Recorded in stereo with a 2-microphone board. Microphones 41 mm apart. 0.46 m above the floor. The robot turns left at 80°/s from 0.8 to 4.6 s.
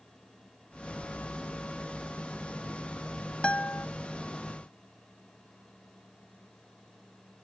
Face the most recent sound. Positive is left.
turn(degrees=55)